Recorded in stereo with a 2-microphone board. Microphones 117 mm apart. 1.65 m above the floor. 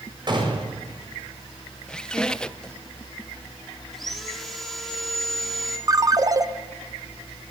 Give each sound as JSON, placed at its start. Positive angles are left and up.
{"t": 0.3, "sound": "a gunshot", "side_deg": -40, "distance_m": 6.5}
{"t": 1.9, "sound": "a squeak", "side_deg": 5, "distance_m": 0.7}
{"t": 3.9, "sound": "sawing", "side_deg": 0, "distance_m": 3.5}
{"t": 5.9, "sound": "a ringtone", "side_deg": -30, "distance_m": 0.9}